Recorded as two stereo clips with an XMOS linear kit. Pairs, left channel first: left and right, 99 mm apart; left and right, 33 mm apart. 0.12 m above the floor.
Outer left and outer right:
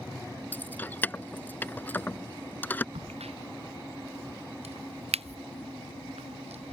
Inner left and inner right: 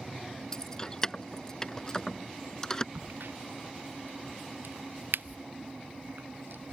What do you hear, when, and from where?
0.5 s keys jangling: 20° left (ahead or behind)
3.0 s a crack: 85° right